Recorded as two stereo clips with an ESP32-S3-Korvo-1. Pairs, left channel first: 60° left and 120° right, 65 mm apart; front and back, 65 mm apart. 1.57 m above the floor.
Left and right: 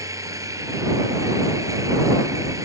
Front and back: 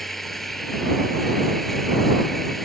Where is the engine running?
85° right.